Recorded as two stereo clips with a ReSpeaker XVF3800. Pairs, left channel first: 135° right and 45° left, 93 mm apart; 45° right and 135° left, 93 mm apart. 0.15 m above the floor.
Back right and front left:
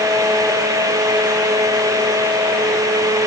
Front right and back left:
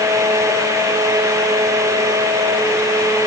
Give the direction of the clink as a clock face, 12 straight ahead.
No clink in this recording.